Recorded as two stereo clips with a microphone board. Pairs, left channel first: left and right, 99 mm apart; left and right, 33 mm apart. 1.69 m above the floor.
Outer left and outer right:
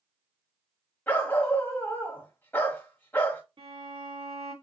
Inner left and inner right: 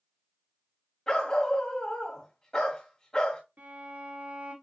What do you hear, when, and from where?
1.1 s a dog barking: 20° left (ahead or behind), 1.7 m
3.6 s a violin: 65° right (ahead or behind), 2.0 m